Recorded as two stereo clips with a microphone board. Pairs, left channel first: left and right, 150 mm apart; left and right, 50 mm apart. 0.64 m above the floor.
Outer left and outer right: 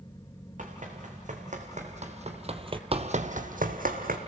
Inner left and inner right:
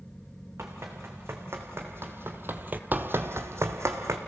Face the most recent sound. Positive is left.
turn(degrees=-70)  # may be behind; listen again after turning